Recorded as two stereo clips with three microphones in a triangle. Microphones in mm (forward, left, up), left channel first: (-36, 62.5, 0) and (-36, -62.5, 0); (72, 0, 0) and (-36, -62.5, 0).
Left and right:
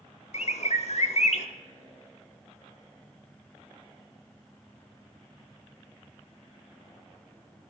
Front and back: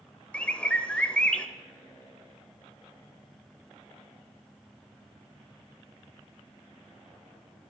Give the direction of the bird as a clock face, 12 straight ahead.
8 o'clock.